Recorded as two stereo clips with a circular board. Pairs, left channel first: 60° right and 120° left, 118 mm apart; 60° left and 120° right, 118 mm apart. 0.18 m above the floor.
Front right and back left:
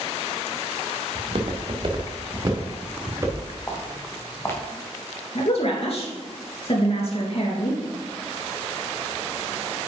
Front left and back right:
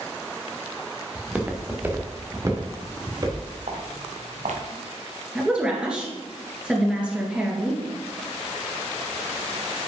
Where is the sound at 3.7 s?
130° right, 2.0 m.